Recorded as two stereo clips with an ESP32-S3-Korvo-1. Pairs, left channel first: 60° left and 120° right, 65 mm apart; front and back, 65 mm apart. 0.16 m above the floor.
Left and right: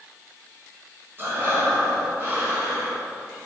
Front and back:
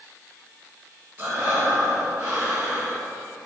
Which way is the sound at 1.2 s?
155° right.